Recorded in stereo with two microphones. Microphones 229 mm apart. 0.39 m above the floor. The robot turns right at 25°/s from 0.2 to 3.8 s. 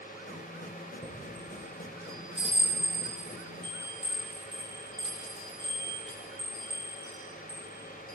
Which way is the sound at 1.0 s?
10° left (ahead or behind).